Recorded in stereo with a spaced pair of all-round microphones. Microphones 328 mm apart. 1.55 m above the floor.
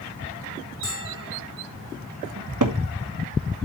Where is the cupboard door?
65° right (ahead or behind), 1.3 m.